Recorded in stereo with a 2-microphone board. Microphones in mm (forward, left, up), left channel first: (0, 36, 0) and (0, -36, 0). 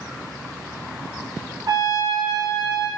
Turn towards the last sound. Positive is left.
turn(degrees=-60)  # may be behind; listen again after turning